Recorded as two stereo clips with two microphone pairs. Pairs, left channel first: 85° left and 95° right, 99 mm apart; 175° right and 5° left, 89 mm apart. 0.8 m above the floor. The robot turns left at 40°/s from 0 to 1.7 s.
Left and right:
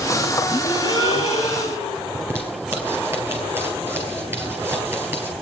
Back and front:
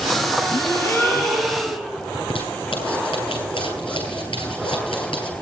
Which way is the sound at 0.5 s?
145° left.